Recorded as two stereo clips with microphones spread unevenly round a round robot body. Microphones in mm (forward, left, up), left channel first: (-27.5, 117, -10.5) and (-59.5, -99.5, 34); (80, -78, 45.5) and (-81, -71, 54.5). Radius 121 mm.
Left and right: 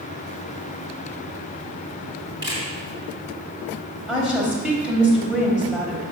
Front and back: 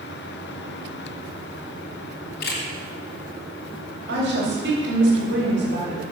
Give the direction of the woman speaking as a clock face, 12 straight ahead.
6 o'clock.